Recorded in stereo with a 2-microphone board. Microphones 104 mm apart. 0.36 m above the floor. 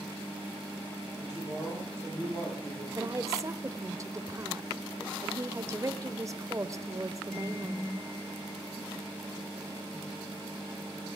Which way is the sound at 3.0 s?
30° right (ahead or behind).